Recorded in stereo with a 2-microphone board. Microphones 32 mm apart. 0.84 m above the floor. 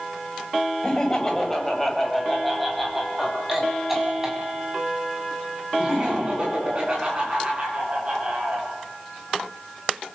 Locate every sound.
0.8 s laughter: 25° left (ahead or behind), 5.5 m; by 8.6 s 30° right (ahead or behind), 12.5 m